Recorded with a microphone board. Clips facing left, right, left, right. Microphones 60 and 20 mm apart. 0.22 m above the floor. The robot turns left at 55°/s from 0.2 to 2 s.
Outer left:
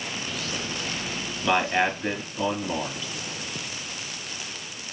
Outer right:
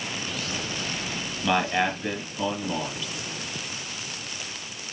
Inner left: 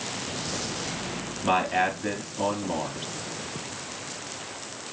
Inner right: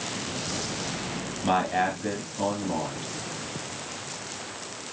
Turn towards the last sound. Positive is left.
turn(degrees=15)  # may be behind; listen again after turning